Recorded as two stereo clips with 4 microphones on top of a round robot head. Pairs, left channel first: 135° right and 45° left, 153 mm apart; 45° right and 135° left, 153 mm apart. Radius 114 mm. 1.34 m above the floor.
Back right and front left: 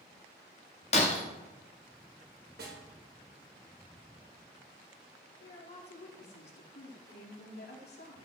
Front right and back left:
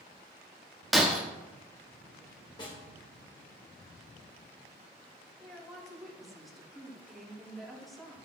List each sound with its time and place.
0.9 s breaking glass: 135° right, 0.8 m
2.6 s a snare drum: 20° left, 2.5 m
5.4 s a woman speaking: 135° right, 3.5 m